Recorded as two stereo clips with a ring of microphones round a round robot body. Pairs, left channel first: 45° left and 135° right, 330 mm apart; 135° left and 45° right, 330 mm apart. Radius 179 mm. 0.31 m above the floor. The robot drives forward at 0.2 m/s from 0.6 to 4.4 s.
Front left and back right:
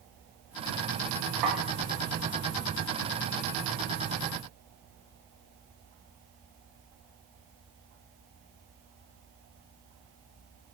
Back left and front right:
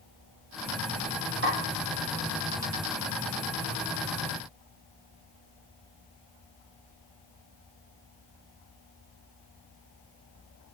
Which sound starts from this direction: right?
A snare drum, at 1.4 s.